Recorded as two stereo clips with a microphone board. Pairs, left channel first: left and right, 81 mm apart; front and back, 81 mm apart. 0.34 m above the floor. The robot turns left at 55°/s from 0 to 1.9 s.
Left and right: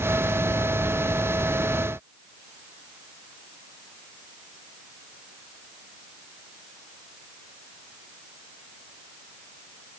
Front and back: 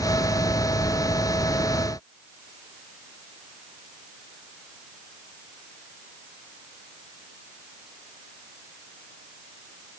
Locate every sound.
Only background noise.